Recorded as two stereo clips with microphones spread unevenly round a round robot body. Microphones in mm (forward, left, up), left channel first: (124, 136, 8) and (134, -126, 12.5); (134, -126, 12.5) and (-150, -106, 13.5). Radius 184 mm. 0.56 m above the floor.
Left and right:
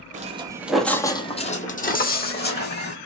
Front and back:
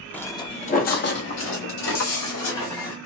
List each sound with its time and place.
0.1 s footsteps: 85° right, 0.6 m; by 3.0 s 45° left, 1.5 m